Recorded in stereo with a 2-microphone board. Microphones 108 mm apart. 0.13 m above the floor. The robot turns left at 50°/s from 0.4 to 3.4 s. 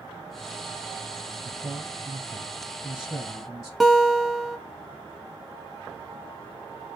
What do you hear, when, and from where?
1.4 s a man speaking: 25° right (ahead or behind), 1.2 m; by 3.7 s centre (ahead or behind), 1.2 m
3.8 s a guitar: centre (ahead or behind), 0.7 m